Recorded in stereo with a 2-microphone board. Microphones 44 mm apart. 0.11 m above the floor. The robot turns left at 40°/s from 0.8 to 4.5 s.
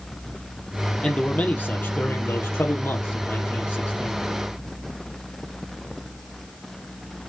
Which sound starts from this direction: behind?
A man speaking, at 1.0 s.